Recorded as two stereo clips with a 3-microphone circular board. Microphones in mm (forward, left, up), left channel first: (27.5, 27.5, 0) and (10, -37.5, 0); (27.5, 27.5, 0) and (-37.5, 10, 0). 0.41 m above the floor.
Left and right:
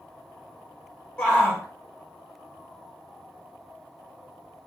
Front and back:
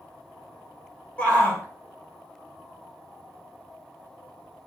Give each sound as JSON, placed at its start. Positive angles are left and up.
{"t": 1.2, "sound": "a shout", "azimuth_deg": 45, "distance_m": 1.0}